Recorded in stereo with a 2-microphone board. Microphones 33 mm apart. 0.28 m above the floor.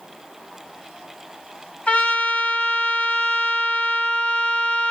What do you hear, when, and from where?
1.9 s a trumpet: 40° left (ahead or behind), 0.9 m